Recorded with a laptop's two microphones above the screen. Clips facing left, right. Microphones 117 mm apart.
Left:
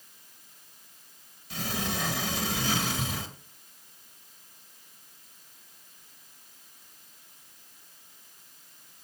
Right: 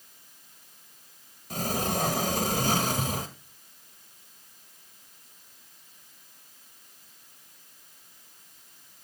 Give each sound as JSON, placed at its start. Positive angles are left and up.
{"t": 1.5, "sound": "a sliding door", "side_deg": -40, "distance_m": 1.4}